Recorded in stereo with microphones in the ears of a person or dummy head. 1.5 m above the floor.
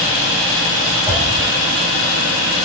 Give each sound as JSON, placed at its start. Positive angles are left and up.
{"t": 1.1, "sound": "a whoosh", "side_deg": 0, "distance_m": 0.9}